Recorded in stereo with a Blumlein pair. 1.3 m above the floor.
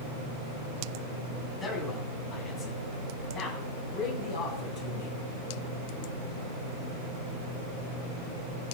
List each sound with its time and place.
1.6 s a man speaking: 20° left, 9 m; by 5.1 s 40° left, 8.5 m